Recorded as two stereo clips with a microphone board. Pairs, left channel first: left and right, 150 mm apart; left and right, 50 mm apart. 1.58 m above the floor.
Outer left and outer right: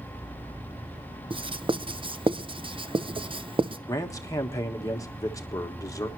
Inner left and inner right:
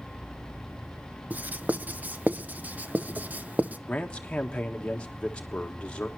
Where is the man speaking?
20° left (ahead or behind), 1.5 m.